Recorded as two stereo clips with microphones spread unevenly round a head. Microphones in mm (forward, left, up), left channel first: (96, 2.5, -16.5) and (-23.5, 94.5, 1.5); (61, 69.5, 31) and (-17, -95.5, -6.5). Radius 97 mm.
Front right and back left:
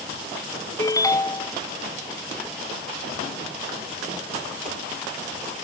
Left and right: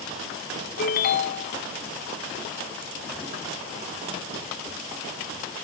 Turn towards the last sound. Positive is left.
turn(degrees=30)